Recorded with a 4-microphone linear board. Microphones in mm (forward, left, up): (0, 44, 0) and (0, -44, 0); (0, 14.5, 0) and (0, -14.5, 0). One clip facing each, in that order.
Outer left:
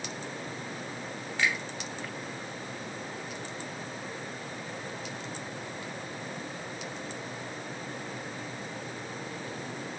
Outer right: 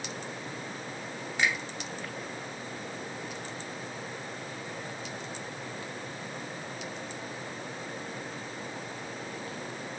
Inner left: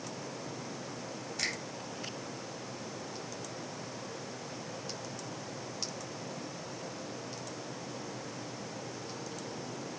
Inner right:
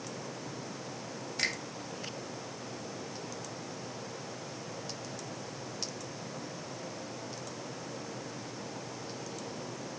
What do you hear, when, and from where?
1.4 s a finger snap: 15° right (ahead or behind), 1.0 m